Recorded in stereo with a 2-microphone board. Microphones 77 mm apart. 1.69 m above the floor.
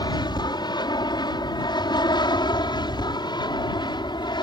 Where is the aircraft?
65° left (ahead or behind); by 4.4 s 70° left (ahead or behind).